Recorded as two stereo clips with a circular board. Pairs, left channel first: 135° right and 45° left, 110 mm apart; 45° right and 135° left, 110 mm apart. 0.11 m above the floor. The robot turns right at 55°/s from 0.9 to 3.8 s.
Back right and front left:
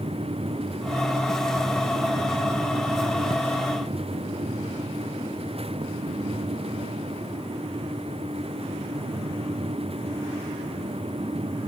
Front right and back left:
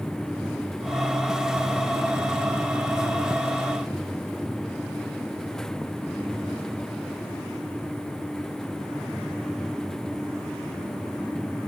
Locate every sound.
Only background noise.